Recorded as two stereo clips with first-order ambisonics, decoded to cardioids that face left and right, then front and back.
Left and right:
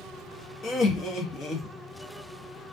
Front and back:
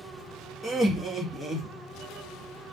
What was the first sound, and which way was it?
Laughter, 75° left.